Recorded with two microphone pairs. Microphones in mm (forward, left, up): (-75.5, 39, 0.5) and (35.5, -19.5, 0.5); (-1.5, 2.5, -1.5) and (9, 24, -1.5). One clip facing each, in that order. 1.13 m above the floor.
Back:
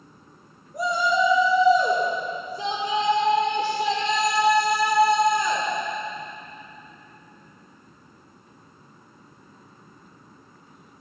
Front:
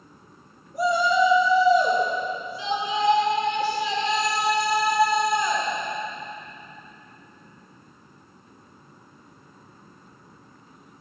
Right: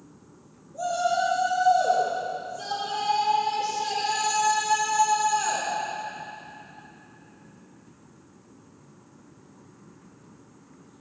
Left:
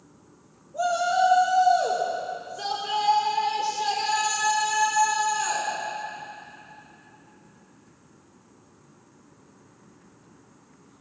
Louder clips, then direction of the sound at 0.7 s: Front 2 dB, left 2 dB; 80° left.